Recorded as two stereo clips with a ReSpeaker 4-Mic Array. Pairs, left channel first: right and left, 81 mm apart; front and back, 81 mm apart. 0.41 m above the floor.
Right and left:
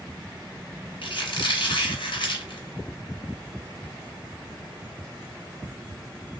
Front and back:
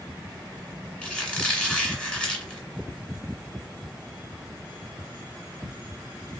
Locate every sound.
1.0 s a squeak: 80° right, 1.5 m